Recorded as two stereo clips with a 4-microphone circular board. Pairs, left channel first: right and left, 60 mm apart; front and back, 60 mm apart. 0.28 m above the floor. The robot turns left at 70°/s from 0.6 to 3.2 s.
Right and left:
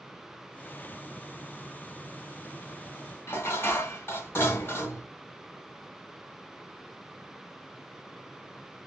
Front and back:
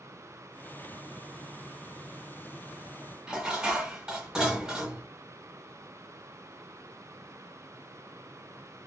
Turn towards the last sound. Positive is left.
turn(degrees=-110)